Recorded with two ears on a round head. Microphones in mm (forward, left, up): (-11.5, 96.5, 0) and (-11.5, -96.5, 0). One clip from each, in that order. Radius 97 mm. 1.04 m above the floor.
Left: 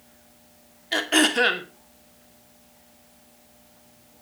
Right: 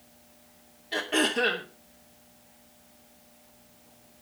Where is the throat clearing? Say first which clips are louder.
Left 6 dB; 45° left (ahead or behind), 2.5 m.